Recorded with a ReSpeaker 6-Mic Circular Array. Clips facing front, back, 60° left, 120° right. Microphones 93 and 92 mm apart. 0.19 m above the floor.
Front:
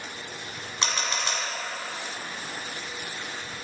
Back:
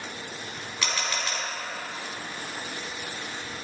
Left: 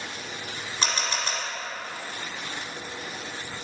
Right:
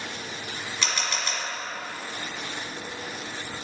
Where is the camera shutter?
40° left, 1.3 m.